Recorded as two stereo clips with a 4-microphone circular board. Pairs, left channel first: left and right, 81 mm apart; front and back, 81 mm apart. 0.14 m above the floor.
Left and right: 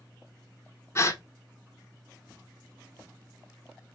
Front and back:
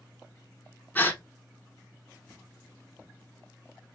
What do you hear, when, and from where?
0.9 s a gasp: 55° left, 0.5 m